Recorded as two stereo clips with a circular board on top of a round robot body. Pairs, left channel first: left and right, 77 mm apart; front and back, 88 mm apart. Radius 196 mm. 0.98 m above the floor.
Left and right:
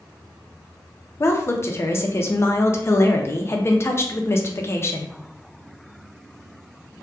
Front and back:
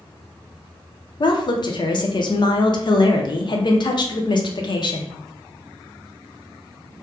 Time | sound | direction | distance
1.2 | a woman speaking | 35° left | 0.6 m